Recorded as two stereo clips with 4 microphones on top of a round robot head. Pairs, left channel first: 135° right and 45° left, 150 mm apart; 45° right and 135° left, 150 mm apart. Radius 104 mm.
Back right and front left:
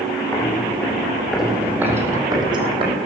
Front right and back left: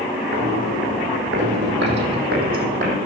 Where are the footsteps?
150° left, 4 m; by 3.0 s 95° left, 3 m.